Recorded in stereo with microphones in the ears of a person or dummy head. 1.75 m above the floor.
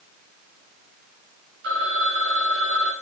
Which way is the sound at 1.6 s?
65° right (ahead or behind).